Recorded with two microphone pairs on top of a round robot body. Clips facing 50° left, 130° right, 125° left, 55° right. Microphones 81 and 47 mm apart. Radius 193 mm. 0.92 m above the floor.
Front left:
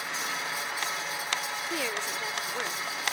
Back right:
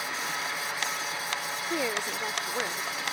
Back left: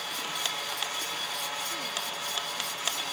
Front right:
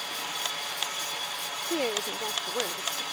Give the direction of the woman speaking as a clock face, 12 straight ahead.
2 o'clock.